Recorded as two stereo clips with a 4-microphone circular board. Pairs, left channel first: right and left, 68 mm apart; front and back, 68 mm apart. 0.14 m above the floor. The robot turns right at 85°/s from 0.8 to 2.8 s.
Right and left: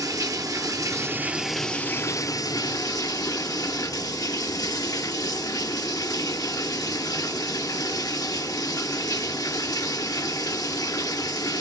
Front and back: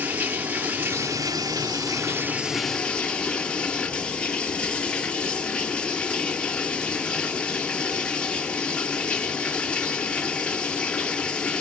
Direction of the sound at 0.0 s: 120° left.